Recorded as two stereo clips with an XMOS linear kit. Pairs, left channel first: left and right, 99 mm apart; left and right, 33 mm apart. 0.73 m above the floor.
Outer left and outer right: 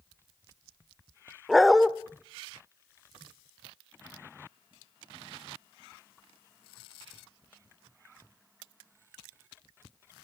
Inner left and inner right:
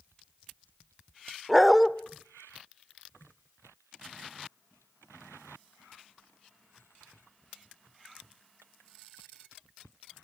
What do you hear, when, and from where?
1.5 s a dog barking: centre (ahead or behind), 0.8 m